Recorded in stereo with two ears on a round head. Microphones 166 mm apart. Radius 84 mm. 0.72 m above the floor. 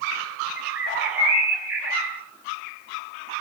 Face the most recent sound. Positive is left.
turn(degrees=-10)  # may be behind; listen again after turning